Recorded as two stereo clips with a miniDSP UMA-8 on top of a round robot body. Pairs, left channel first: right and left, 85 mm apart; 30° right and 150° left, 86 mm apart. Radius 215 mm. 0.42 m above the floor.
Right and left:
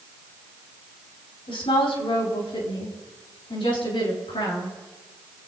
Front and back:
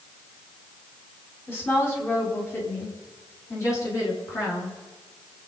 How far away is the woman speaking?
About 5 m.